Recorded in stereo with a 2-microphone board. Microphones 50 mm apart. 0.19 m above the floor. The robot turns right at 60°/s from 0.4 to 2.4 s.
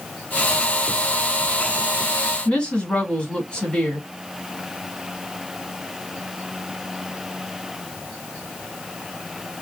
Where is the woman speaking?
20° left (ahead or behind), 1.4 m.